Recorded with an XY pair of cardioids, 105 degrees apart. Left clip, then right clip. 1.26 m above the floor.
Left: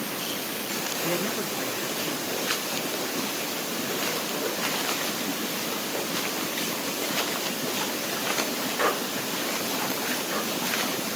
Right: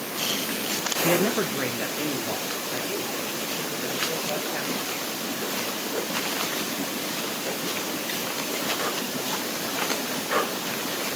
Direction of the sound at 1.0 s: 40° right.